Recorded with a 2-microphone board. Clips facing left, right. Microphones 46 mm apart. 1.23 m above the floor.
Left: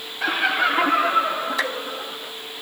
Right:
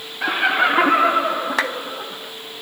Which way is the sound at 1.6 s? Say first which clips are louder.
Right 4 dB; 65° right (ahead or behind).